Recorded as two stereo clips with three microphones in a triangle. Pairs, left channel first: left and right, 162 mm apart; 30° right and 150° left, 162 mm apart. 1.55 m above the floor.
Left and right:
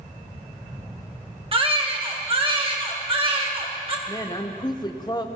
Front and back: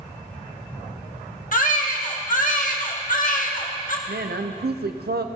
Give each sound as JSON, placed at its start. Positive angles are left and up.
{"t": 1.5, "sound": "a baby crying", "azimuth_deg": -40, "distance_m": 1.5}
{"t": 4.1, "sound": "a woman speaking", "azimuth_deg": 150, "distance_m": 0.6}